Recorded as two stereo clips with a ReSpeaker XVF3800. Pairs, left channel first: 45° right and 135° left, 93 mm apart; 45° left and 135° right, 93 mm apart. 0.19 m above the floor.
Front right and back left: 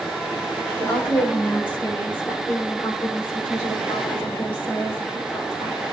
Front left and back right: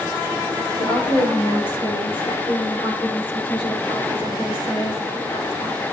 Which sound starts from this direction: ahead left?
A woman speaking, at 0.8 s.